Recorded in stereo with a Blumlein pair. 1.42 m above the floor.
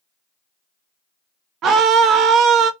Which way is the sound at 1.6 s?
30° right.